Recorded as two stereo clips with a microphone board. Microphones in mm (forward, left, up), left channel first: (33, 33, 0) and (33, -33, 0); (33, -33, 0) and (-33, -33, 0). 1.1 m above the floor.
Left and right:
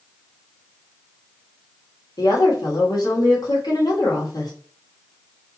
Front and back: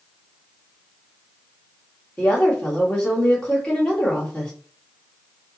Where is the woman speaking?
75° left, 2.5 m.